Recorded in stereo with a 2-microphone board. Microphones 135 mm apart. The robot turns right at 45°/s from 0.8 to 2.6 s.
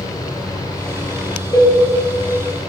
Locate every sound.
1.5 s a cowbell: 25° left (ahead or behind), 5 m; by 1.7 s 35° left (ahead or behind), 5 m